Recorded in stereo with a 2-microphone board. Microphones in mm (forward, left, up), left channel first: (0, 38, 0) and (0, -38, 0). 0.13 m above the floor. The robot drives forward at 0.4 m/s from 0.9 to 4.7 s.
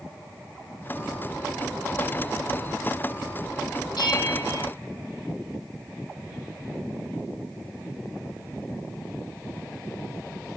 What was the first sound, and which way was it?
A bell, 65° left (ahead or behind).